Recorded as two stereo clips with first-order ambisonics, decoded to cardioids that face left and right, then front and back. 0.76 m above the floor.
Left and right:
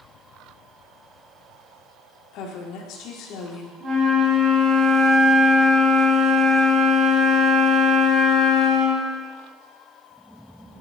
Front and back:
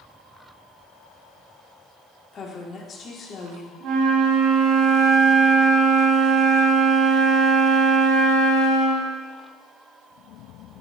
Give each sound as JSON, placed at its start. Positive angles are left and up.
{"t": 2.3, "sound": "a woman speaking", "azimuth_deg": 60, "distance_m": 1.6}
{"t": 3.8, "sound": "a flute", "azimuth_deg": -160, "distance_m": 3.5}